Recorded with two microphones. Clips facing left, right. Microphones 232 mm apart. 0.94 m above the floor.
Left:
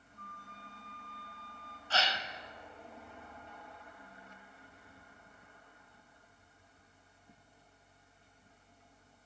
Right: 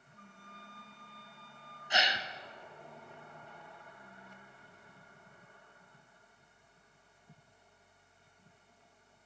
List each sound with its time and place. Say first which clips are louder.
0.2 s a flute: even; 45° left (ahead or behind), 1.1 m
1.9 s a gasp: right 1 dB; 15° right (ahead or behind), 0.5 m